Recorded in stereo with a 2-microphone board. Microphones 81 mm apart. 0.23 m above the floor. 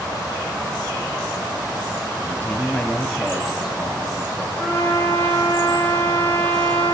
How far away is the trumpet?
About 7 m.